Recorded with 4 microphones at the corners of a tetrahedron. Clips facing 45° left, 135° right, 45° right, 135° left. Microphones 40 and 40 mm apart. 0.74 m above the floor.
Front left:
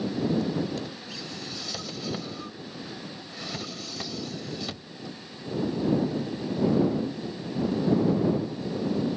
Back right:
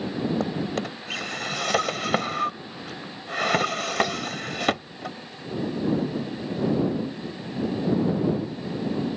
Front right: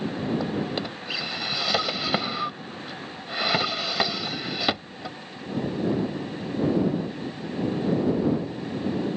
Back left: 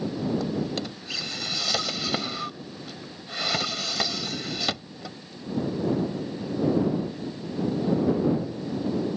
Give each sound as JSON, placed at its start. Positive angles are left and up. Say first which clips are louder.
{"t": 0.4, "sound": "a drawer", "louder": "back right 2 dB, front right 1 dB", "azimuth_deg": -110}